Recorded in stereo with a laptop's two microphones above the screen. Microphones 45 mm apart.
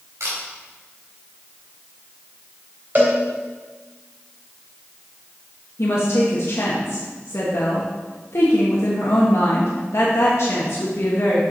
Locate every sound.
0.2 s a camera shutter: 75° right (ahead or behind), 2.5 m
3.0 s a cowbell: 40° right (ahead or behind), 3 m
5.8 s a woman speaking: 65° left (ahead or behind), 1.1 m